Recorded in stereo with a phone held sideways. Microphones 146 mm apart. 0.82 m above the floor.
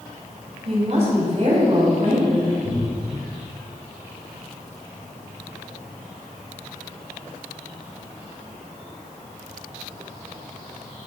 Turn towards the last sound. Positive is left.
turn(degrees=-65)  # may be behind; listen again after turning